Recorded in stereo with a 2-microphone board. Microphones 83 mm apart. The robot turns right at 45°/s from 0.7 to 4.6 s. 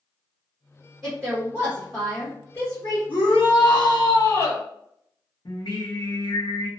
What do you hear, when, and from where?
1.0 s a woman speaking: 40° right (ahead or behind), 1.2 m; by 3.0 s 45° left (ahead or behind), 1.2 m
3.1 s a shout: 85° left, 1.1 m; by 4.6 s 150° left, 1.1 m
5.5 s singing: 60° left (ahead or behind), 1.0 m